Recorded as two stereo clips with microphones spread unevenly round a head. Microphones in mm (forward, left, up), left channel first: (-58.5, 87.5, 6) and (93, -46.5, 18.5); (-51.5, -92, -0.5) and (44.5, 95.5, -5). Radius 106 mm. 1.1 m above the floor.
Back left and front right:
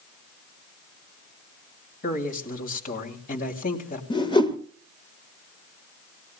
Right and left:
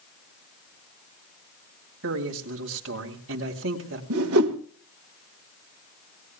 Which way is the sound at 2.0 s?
90° left.